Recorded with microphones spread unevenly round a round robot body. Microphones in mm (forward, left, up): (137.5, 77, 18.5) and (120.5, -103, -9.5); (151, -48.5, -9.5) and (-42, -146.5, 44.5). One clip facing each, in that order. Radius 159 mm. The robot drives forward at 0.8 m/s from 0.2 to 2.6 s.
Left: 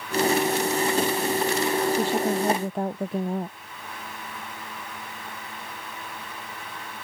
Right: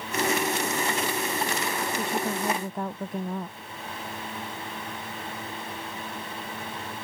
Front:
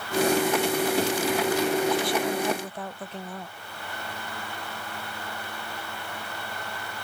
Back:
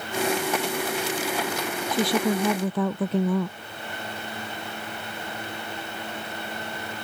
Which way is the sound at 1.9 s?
160° left.